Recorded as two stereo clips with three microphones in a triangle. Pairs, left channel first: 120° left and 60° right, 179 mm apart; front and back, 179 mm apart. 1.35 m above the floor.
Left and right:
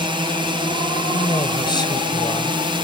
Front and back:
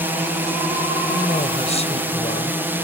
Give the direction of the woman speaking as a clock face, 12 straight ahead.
10 o'clock.